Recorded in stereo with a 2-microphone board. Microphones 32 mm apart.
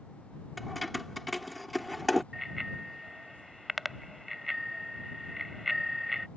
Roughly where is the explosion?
No explosion in this recording.